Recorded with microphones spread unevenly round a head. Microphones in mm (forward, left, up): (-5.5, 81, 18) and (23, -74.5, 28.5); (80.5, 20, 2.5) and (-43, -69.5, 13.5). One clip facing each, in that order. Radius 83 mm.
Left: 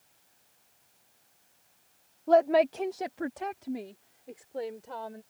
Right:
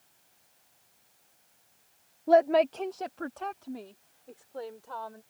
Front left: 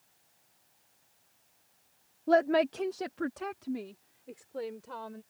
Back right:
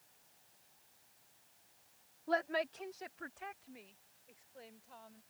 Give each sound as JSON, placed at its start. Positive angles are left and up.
{"t": 2.3, "sound": "a woman speaking", "azimuth_deg": 0}